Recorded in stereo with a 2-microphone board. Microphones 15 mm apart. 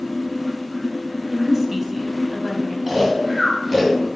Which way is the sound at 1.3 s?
35° right (ahead or behind).